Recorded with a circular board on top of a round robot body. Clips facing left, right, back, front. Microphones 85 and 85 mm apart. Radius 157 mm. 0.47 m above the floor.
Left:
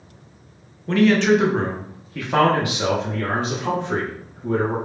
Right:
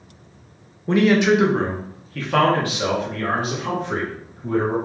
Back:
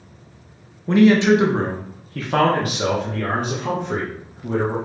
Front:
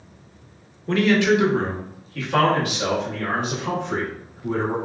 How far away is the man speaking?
About 1.0 m.